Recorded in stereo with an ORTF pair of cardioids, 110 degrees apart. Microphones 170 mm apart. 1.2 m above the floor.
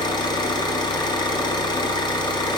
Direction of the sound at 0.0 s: 25° left.